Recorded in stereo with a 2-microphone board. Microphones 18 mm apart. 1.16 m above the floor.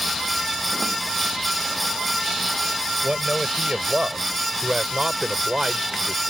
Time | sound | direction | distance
3.0 | a man speaking | 55° right (ahead or behind) | ?